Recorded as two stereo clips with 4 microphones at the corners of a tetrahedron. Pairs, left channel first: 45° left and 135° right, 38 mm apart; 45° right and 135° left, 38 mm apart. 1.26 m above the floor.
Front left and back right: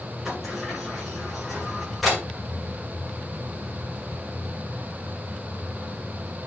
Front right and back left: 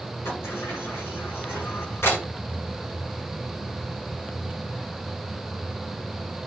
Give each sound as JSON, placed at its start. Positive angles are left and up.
{"t": 0.2, "sound": "a sliding door", "azimuth_deg": -40, "distance_m": 9.5}